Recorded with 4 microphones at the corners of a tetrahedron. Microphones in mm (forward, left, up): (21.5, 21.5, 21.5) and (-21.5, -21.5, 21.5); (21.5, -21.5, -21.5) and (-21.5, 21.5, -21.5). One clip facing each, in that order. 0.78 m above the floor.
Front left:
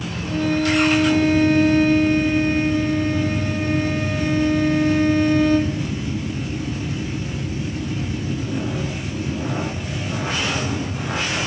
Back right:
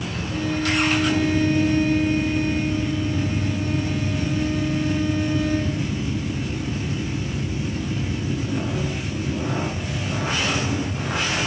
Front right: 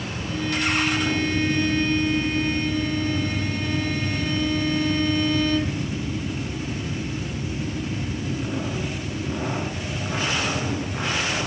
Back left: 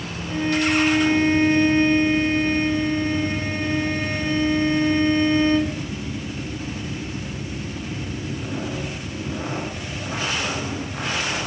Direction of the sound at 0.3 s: 75° left.